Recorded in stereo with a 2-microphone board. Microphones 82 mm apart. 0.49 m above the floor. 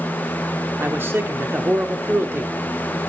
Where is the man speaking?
25° right (ahead or behind), 1.0 m.